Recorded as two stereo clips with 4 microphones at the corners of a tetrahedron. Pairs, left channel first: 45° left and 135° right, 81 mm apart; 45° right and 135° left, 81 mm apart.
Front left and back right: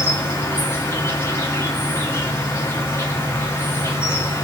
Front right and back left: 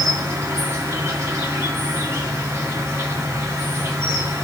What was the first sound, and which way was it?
An insect, 95° left.